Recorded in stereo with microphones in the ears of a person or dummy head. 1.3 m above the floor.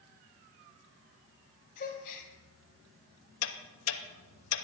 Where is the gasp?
45° left (ahead or behind), 2.0 m.